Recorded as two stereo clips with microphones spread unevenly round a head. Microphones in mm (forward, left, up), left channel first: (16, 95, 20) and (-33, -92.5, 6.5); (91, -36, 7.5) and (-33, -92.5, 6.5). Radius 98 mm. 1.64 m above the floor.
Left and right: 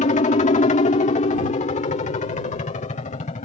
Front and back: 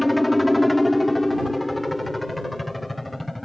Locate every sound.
0.0 s a helicopter: 115° left